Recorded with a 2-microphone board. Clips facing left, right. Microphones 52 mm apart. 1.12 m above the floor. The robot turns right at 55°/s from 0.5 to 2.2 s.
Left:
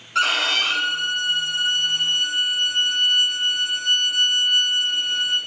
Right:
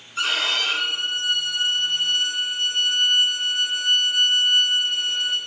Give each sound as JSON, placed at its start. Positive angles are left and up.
{"t": 0.1, "sound": "a violin", "azimuth_deg": 100, "distance_m": 7.0}